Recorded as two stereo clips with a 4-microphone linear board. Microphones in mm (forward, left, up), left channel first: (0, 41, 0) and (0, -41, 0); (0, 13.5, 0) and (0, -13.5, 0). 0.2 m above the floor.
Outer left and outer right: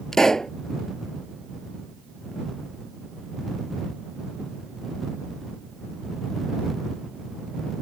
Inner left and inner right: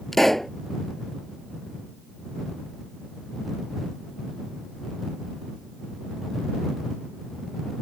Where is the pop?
5° left (ahead or behind).